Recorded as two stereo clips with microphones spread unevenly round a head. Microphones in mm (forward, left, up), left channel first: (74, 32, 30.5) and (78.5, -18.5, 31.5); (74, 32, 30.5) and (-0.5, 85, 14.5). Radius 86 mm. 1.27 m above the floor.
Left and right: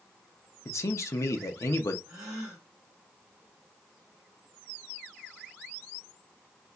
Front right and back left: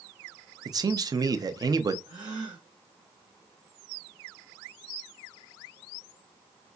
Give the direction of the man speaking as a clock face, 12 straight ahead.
8 o'clock.